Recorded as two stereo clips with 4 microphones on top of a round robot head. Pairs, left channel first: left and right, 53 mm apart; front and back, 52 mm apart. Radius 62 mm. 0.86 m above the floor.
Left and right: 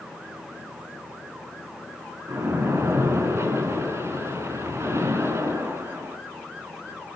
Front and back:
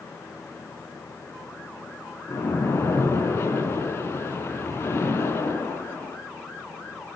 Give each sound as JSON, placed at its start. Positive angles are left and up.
{"t": 2.3, "sound": "a splash", "azimuth_deg": -55, "distance_m": 5.5}